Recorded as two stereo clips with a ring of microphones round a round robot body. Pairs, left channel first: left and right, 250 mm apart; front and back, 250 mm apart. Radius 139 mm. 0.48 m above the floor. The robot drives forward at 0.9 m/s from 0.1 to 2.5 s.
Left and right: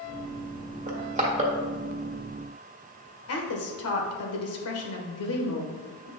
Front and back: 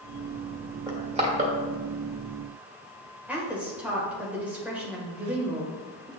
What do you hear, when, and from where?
0.9 s crushing: 115° right, 1.5 m; by 1.5 s 145° right, 1.8 m
3.3 s a woman speaking: 95° left, 1.6 m